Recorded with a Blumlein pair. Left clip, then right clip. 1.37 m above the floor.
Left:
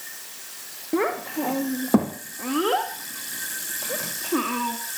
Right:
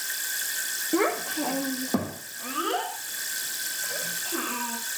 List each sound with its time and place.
0.9 s a child speaking: 10° left, 2 m; by 4.8 s 60° left, 2.5 m